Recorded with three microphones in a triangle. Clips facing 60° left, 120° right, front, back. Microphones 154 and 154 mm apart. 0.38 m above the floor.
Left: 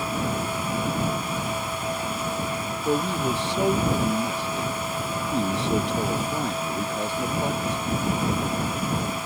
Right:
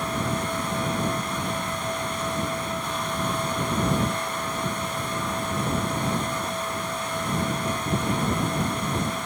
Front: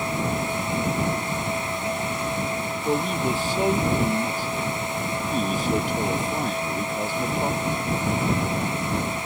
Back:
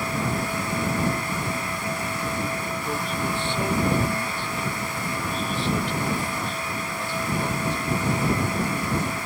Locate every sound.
2.9 s a man speaking: 55° left; by 8.0 s 45° left